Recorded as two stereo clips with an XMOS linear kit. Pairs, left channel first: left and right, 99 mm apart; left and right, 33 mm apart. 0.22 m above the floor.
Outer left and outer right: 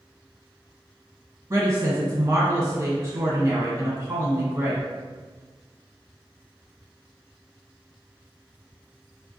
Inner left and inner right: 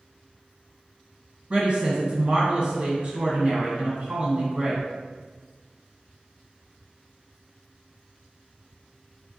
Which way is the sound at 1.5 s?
30° right (ahead or behind).